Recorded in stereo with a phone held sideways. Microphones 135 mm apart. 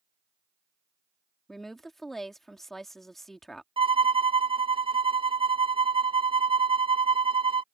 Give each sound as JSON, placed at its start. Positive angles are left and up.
{"t": 1.5, "sound": "a woman speaking", "side_deg": 0}
{"t": 3.8, "sound": "a violin", "side_deg": -40}